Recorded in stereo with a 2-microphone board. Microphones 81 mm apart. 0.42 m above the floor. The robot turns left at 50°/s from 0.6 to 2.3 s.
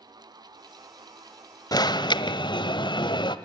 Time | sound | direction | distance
1.7 | an alarm | 50° left (ahead or behind) | 1.3 m